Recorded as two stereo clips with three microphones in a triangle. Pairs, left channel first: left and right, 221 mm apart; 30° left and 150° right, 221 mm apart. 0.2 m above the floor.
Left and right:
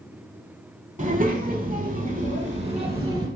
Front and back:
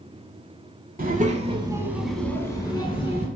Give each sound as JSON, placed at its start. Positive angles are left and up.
{"t": 1.0, "sound": "a child speaking", "azimuth_deg": -130, "distance_m": 0.7}